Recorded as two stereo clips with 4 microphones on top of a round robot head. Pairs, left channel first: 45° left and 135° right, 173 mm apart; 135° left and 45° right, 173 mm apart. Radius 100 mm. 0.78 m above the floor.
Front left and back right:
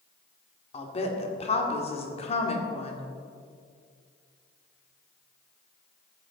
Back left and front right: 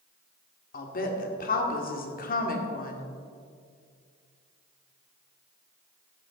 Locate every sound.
0.7 s a woman speaking: 100° left, 1.9 m